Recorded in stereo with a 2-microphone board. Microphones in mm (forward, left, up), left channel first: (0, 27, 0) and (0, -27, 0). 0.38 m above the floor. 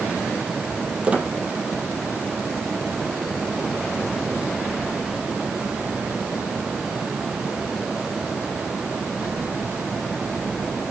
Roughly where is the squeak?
Right.